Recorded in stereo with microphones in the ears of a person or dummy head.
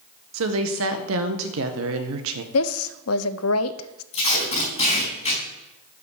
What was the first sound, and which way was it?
A woman speaking, 75° right (ahead or behind).